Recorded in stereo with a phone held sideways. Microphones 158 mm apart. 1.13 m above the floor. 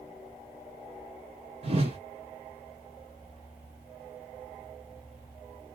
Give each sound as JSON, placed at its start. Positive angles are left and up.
{"t": 1.6, "sound": "a whoosh", "side_deg": -40, "distance_m": 1.2}